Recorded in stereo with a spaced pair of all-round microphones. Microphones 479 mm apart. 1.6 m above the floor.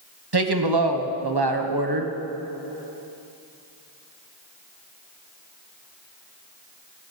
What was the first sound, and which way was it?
A woman speaking, 50° right (ahead or behind).